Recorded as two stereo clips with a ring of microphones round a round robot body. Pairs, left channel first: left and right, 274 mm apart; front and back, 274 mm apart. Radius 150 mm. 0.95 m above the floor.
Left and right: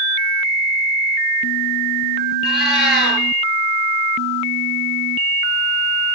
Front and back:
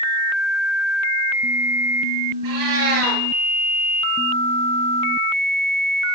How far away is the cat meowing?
About 6 m.